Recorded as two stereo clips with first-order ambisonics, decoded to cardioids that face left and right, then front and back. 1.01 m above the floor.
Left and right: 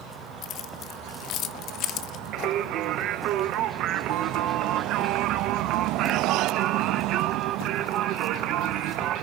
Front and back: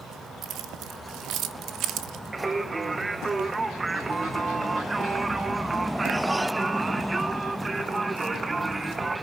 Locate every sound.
0.4 s keys jangling: 135° left, 1.1 m
2.3 s singing: 105° right, 0.7 m